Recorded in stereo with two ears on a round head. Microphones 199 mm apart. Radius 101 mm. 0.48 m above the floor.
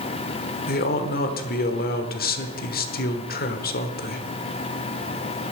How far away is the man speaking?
About 1.2 m.